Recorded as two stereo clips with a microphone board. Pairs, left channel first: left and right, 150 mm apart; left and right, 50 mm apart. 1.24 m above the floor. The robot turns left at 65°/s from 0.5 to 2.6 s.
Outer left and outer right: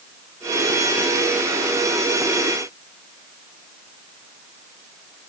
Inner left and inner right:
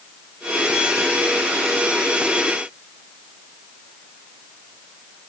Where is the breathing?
I don't hear breathing.